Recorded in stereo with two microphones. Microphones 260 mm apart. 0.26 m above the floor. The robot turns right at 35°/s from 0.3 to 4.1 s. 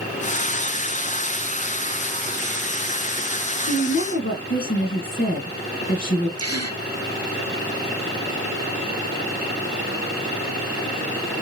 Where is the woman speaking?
25° left (ahead or behind), 2.0 m; by 6.3 s 40° left (ahead or behind), 2.0 m.